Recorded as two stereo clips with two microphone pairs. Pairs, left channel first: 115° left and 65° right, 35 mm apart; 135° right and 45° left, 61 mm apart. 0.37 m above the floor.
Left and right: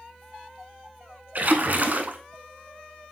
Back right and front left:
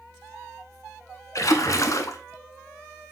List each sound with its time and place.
1.4 s a splash: 105° right, 0.7 m